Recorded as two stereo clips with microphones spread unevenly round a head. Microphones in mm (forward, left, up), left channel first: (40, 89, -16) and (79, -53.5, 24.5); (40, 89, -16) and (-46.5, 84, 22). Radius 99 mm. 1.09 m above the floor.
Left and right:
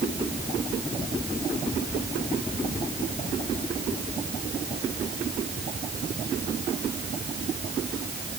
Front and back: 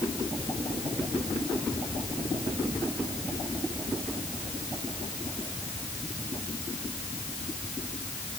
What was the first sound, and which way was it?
Only background noise.